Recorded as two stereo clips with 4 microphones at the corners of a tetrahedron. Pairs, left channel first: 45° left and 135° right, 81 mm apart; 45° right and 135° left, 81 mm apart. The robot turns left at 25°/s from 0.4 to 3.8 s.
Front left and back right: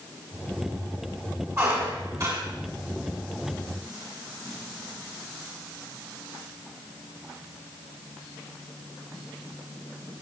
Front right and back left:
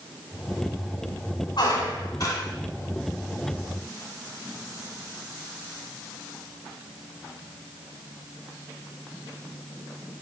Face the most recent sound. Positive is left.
turn(degrees=-135)